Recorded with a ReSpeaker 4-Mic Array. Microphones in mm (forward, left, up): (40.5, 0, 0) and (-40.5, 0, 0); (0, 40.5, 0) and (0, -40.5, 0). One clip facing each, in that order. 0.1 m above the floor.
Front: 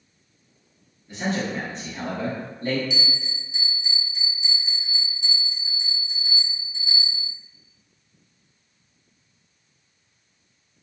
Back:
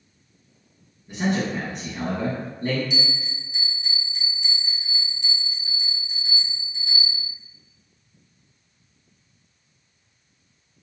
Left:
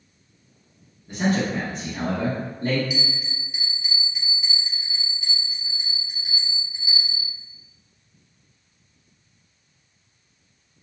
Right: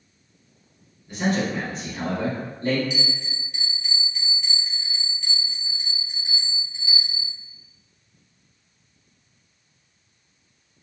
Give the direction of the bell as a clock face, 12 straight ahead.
6 o'clock.